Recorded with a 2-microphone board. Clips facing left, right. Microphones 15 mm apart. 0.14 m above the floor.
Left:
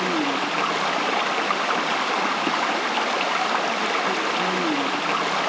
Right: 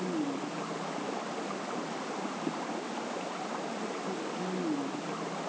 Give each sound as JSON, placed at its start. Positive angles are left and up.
{"t": 0.0, "sound": "running water", "side_deg": 75}